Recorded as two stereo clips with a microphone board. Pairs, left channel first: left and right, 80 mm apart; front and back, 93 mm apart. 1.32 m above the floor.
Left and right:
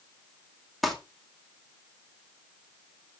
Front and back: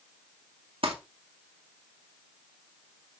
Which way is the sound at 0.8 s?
Straight behind.